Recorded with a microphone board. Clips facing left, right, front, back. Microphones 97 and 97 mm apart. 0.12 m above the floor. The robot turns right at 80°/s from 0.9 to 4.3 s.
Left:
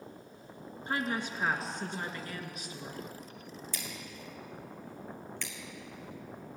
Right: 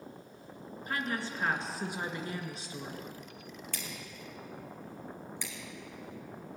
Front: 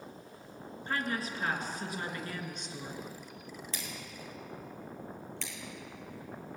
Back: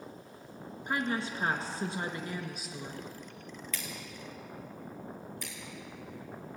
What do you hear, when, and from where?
0.9 s a woman speaking: 120° left, 1.9 m; by 3.1 s 60° right, 1.9 m
3.7 s scissors: 60° right, 3 m; by 5.5 s 15° right, 3 m